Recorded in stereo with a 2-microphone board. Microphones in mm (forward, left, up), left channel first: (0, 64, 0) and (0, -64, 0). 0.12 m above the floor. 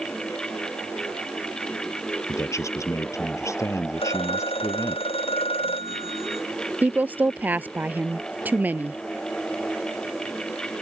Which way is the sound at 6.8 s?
15° right (ahead or behind).